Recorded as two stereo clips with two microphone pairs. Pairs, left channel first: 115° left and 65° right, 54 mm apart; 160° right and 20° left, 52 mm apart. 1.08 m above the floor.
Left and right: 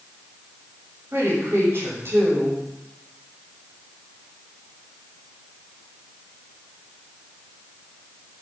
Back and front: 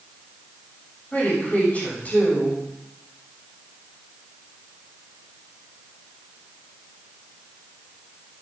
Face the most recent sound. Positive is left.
turn(degrees=-100)